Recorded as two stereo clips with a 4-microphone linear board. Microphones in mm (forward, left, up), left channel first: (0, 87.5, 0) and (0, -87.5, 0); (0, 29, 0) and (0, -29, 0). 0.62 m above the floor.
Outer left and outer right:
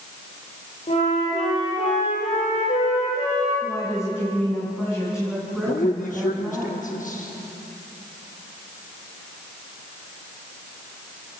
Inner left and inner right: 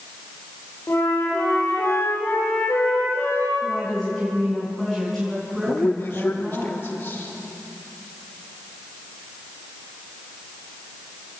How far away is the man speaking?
About 0.8 m.